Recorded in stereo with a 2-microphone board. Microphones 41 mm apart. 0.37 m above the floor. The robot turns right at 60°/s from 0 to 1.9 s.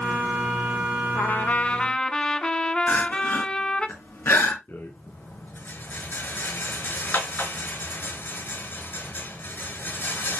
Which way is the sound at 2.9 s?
80° left.